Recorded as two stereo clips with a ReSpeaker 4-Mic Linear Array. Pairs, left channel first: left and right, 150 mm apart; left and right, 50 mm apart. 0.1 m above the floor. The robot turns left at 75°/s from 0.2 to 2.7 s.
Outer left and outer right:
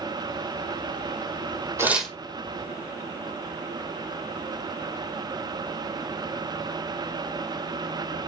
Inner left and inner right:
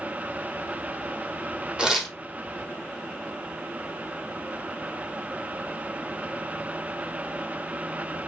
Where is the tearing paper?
20° right (ahead or behind), 0.8 m; by 2.2 s 10° left (ahead or behind), 0.8 m.